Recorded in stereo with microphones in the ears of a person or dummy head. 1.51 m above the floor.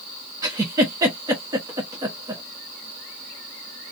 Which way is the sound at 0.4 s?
10° right (ahead or behind).